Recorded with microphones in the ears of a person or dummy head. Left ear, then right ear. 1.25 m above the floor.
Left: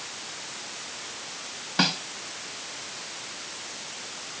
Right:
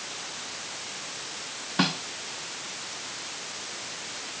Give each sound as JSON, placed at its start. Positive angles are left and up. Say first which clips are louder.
{"t": 1.8, "sound": "a snare drum", "louder": "left 2 dB", "side_deg": 25}